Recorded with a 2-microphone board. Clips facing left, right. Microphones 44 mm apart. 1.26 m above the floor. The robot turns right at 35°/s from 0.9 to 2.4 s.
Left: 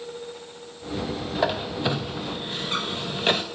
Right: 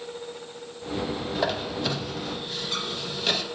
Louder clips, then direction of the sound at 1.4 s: Left 3 dB; 5° left (ahead or behind).